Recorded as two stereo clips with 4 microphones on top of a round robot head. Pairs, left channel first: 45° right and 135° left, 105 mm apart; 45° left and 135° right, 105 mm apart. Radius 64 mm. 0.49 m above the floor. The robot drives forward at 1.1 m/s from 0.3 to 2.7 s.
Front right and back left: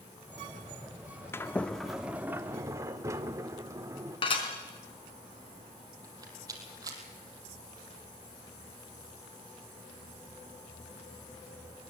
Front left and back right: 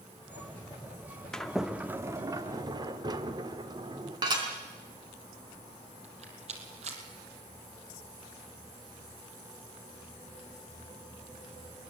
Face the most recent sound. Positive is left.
turn(degrees=-165)